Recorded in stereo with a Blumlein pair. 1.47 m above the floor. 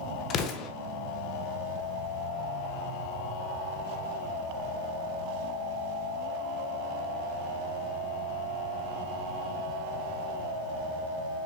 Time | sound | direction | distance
0.3 | an explosion | 30° left | 1.2 m